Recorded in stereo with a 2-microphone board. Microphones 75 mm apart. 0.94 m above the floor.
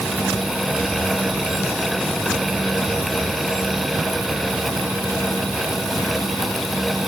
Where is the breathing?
No breathing in this recording.